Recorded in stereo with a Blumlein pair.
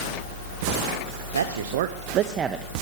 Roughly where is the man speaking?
Right.